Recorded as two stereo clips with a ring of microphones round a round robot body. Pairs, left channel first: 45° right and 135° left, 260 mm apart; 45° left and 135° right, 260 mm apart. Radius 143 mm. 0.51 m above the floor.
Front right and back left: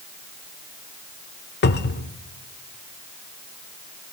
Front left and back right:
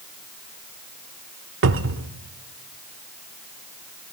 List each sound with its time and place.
1.6 s a cupboard door: 95° right, 0.8 m